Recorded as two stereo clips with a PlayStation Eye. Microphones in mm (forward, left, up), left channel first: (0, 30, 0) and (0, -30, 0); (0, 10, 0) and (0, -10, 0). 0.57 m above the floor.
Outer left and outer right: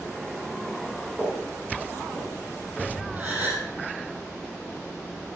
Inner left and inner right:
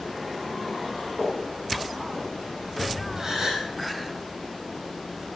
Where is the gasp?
25° right (ahead or behind), 4.5 m.